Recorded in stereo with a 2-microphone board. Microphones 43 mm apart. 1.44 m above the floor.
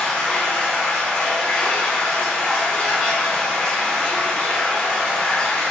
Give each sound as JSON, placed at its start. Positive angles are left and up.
{"t": 0.0, "sound": "running water", "side_deg": 20, "distance_m": 1.1}